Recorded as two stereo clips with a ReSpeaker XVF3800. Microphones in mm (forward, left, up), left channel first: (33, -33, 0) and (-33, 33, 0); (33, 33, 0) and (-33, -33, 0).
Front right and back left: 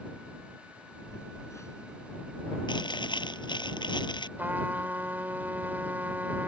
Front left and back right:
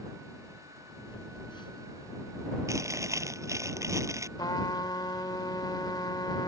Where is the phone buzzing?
15° left.